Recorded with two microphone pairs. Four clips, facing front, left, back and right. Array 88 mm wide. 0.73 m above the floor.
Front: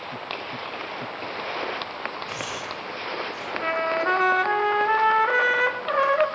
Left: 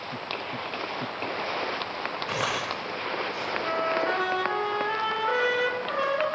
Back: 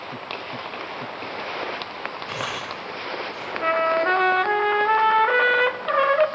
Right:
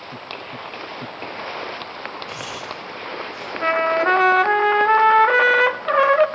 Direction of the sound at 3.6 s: 100° right.